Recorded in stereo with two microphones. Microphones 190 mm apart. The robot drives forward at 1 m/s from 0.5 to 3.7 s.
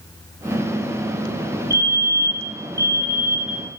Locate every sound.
1.7 s a fire alarm: 60° right (ahead or behind), 4.5 m; by 3.6 s 55° right (ahead or behind), 5 m